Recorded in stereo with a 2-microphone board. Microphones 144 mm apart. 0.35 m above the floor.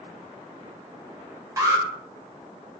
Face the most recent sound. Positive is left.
turn(degrees=-20)  # may be behind; listen again after turning